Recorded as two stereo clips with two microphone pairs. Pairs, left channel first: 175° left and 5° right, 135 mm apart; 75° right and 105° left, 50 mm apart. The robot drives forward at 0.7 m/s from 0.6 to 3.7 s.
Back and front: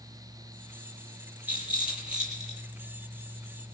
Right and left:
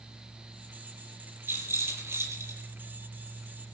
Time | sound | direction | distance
1.5 | a rattle | 70° left | 6.5 m